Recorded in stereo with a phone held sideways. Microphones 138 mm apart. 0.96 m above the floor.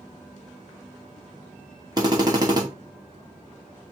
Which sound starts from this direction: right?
A drill, at 2.0 s.